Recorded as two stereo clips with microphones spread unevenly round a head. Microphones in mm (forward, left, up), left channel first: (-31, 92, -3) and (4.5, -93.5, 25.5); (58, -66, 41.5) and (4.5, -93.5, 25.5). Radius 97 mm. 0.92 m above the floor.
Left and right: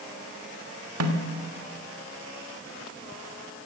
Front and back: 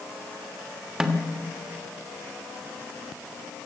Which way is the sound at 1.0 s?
75° right.